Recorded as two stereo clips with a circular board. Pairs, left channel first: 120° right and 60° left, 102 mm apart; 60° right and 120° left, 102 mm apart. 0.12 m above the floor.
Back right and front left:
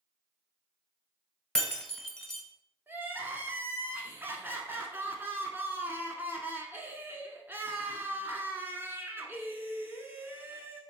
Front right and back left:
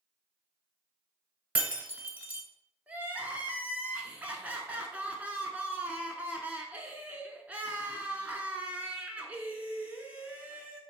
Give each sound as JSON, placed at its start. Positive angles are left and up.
{"t": 1.6, "sound": "breaking glass", "azimuth_deg": 165, "distance_m": 0.8}
{"t": 2.9, "sound": "crying", "azimuth_deg": 75, "distance_m": 0.6}